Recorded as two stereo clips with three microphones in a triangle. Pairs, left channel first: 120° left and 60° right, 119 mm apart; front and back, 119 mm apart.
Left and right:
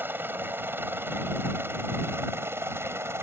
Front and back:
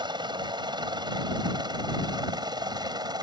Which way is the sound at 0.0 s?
130° right.